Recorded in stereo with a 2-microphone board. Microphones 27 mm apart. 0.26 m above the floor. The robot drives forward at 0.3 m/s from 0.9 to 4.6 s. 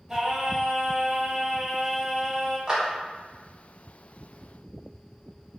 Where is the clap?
25° right (ahead or behind), 1.0 m.